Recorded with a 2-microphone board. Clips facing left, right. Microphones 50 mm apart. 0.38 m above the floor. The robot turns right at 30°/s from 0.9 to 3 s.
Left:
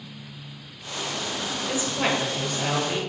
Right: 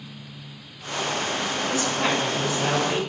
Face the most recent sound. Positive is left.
turn(degrees=-165)